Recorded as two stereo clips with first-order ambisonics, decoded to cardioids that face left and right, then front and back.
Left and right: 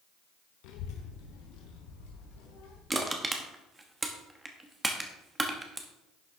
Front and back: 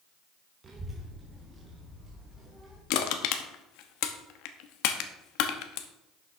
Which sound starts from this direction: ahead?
Crushing, at 2.9 s.